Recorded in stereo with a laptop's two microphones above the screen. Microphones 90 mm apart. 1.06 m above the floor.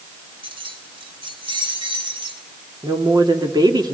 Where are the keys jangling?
85° right, 2.0 m; by 2.4 s 75° right (ahead or behind), 3 m.